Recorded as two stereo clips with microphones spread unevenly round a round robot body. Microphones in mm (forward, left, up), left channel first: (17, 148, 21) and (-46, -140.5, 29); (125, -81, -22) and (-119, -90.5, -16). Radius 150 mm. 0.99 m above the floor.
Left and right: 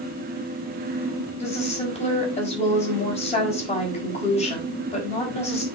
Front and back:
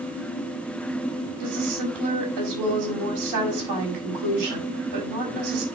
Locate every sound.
1.4 s a woman speaking: 150° left, 4.5 m